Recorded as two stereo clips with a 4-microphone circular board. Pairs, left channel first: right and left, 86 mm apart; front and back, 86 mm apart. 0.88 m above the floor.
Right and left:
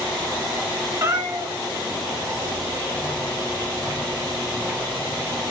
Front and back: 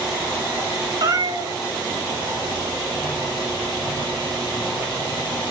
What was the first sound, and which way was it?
A cat meowing, 145° left.